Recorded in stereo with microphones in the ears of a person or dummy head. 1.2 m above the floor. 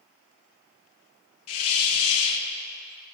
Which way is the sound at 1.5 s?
75° left (ahead or behind).